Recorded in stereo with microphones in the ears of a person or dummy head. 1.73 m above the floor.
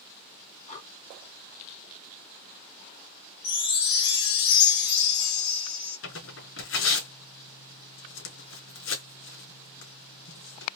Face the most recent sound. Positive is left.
turn(degrees=80)